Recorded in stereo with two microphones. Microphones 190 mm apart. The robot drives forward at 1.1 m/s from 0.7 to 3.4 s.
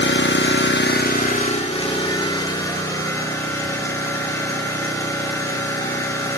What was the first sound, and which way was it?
An engine running, 65° left (ahead or behind).